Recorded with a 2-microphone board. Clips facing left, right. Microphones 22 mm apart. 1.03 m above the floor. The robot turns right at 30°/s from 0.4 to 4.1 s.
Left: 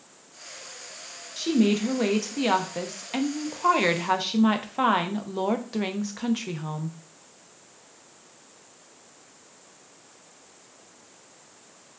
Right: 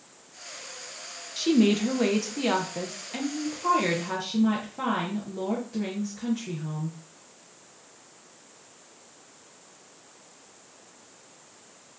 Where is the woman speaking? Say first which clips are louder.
Right 1 dB; 20° right, 0.7 m; by 7.0 s 65° left, 0.7 m.